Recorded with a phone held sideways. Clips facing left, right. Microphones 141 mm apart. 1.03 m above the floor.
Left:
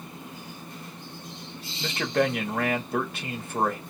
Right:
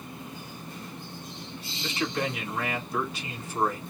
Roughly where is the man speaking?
Left.